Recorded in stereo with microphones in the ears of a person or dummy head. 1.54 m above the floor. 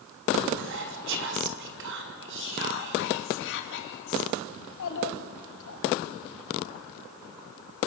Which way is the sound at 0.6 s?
60° right (ahead or behind).